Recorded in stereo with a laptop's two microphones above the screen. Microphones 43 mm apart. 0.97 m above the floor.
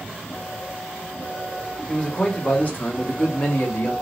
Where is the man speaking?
15° left (ahead or behind), 1.1 m; by 3.9 s 50° left (ahead or behind), 1.5 m.